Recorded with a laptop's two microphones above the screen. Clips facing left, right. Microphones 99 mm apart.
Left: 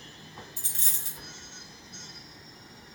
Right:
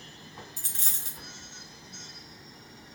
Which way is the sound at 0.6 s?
45° right (ahead or behind).